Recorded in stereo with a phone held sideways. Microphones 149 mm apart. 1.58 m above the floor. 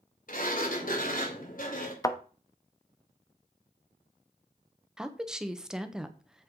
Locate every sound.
0.3 s a sliding door: 60° left (ahead or behind), 2.5 m
2.0 s a thud: 20° left (ahead or behind), 0.9 m
5.0 s a woman speaking: 5° right (ahead or behind), 1.0 m